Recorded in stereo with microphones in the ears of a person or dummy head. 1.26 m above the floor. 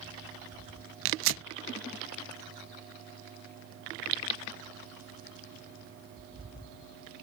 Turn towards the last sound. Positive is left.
turn(degrees=-65)  # may be behind; listen again after turning